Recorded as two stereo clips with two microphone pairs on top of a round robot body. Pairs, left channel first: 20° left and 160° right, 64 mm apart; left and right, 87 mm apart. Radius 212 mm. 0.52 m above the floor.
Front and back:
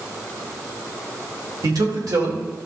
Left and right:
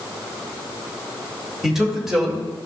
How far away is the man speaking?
About 2.5 m.